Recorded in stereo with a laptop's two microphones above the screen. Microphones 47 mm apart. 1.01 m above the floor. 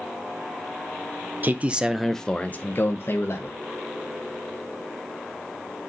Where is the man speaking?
40° right (ahead or behind), 0.6 m; by 3.6 s 65° left (ahead or behind), 1.0 m.